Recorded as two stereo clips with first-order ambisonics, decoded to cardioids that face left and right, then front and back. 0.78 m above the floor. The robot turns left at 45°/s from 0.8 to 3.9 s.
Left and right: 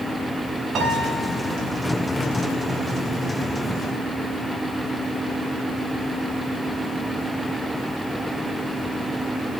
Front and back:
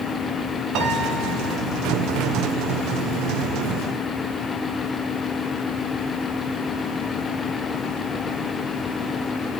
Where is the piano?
140° right, 1.1 m; by 1.6 s straight behind, 1.1 m.